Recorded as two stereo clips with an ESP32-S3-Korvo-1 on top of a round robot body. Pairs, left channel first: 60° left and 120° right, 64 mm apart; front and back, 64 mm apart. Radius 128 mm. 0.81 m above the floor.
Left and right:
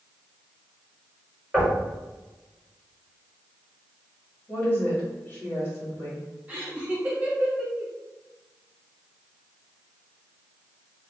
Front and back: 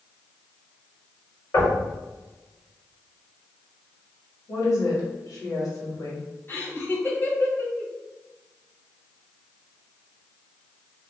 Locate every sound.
1.5 s knocking: 40° right, 1.8 m
4.5 s a woman speaking: straight ahead, 1.8 m
6.5 s laughter: 55° right, 1.4 m